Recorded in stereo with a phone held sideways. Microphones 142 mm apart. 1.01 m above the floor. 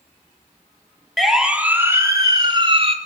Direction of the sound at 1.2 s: Centre (ahead or behind).